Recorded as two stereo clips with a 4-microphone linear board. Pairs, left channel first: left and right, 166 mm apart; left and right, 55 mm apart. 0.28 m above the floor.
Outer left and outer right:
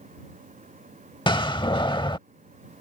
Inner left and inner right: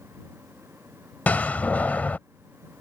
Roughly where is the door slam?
Left.